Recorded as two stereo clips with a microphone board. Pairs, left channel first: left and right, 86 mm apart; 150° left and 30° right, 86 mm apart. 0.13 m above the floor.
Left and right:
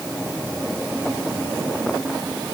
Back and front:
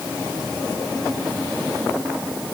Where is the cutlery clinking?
I don't hear cutlery clinking.